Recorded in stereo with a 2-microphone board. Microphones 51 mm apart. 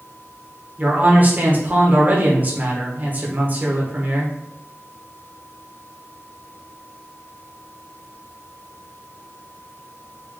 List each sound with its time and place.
0.8 s a man speaking: 35° right (ahead or behind), 1.3 m